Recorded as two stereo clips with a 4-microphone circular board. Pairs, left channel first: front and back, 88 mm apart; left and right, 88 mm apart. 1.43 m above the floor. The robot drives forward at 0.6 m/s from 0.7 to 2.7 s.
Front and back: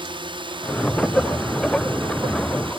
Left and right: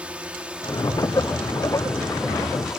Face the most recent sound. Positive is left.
turn(degrees=-175)